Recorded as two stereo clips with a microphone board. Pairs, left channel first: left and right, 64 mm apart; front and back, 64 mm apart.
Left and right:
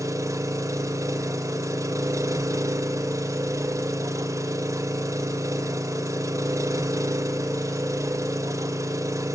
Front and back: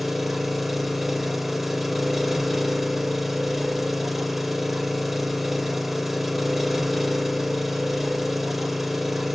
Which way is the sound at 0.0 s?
95° right.